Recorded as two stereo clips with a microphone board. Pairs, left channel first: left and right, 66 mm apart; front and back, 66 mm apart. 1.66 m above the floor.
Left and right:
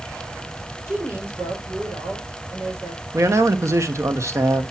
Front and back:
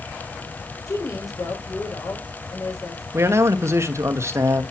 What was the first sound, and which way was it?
A woman speaking, 35° right.